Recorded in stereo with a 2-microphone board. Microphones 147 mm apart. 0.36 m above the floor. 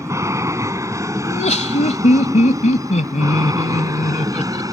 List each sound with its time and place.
0.0 s an aircraft: 20° right (ahead or behind); by 4.7 s 25° right (ahead or behind)
1.2 s laughter: 50° left (ahead or behind)